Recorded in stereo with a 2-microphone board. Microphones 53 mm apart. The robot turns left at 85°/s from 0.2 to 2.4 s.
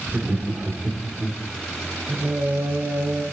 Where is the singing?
50° right (ahead or behind), 1.9 m; by 3.2 s 60° right (ahead or behind), 1.9 m.